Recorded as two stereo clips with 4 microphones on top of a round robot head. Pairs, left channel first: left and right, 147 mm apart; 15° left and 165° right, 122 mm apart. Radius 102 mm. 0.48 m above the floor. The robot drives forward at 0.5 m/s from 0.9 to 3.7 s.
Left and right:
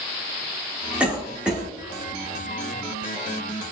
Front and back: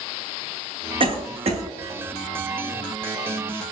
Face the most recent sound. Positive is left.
turn(degrees=-175)